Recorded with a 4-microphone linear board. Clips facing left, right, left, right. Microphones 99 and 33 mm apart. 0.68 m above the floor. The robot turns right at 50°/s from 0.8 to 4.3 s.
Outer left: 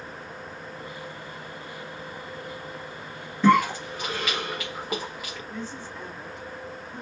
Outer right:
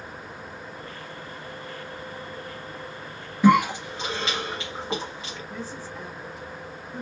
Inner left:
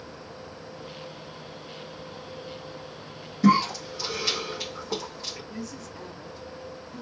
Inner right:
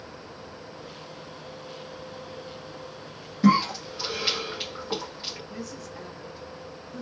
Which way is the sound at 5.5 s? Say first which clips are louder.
Outer right 1 dB, even; 5° right (ahead or behind).